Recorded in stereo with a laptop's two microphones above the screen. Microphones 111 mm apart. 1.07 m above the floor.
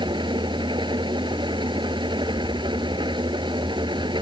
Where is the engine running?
45° right (ahead or behind).